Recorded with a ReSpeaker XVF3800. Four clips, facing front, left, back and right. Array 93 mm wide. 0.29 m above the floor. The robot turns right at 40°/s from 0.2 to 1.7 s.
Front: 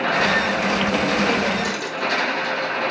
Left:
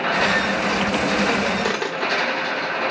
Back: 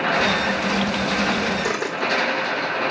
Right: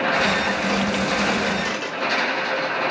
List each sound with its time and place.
1.6 s a dropped coin: 110° left, 1.3 m; by 2.5 s 115° left, 1.3 m